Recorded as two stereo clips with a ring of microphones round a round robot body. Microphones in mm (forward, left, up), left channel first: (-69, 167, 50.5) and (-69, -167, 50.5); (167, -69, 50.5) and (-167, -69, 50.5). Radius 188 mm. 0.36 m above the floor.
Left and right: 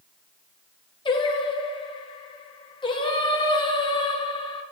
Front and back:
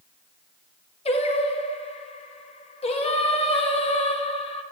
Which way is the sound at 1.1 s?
40° left.